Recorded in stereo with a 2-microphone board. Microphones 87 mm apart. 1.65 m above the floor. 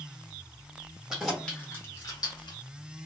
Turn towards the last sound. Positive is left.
turn(degrees=60)  # may be behind; listen again after turning